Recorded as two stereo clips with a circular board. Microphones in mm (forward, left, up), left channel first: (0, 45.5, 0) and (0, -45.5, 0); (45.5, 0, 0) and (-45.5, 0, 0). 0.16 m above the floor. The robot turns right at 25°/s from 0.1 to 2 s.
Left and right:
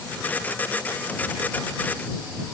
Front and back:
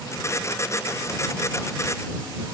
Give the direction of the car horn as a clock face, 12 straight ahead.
No car horn in this recording.